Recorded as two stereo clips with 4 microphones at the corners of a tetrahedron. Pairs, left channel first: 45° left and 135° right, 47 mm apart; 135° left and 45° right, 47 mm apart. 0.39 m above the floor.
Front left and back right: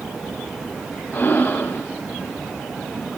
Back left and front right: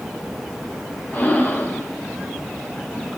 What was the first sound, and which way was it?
Breathing, 90° left.